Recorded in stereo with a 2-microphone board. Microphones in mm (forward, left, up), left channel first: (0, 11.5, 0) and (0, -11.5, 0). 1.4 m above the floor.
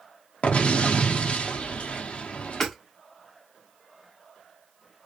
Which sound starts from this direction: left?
An explosion, at 0.4 s.